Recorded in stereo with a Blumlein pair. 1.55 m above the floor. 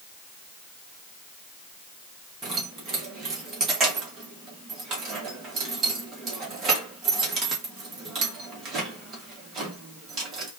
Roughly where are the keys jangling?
Ahead right.